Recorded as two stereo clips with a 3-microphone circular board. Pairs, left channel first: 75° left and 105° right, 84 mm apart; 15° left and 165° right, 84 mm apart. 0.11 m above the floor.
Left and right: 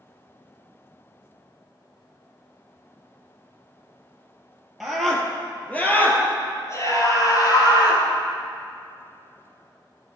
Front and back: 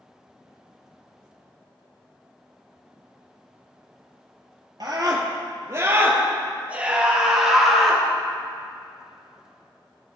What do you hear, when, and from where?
4.8 s a scream: 170° left, 2.5 m; by 8.0 s 100° left, 3 m